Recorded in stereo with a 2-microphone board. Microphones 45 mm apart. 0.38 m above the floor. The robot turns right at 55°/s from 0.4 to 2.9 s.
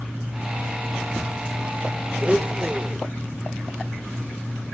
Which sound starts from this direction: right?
A blender, at 2.2 s.